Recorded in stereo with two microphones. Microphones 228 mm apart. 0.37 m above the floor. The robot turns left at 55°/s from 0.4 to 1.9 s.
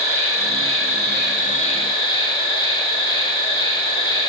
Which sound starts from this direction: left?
An insect, at 0.0 s.